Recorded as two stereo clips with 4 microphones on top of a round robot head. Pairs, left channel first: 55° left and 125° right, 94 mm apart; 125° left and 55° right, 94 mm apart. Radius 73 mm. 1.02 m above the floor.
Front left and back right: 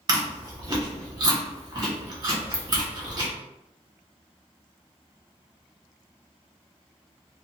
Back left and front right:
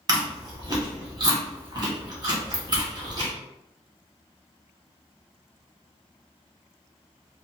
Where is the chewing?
85° right, 1.5 m.